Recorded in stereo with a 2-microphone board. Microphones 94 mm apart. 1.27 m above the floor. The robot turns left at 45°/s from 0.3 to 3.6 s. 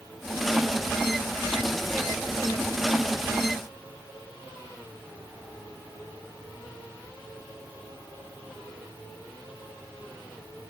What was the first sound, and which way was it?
Only background noise.